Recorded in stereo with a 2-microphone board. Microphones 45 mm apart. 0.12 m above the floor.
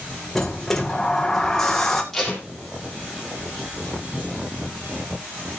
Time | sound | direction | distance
0.3 | a sliding door | 10° left (ahead or behind) | 1.7 m
2.1 | tape being pulled | 5° left (ahead or behind) | 5 m